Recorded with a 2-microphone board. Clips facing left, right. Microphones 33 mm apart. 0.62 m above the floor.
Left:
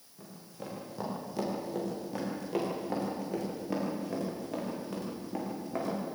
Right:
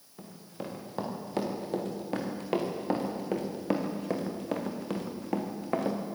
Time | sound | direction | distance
0.2 | running footsteps | 45° right (ahead or behind) | 8 m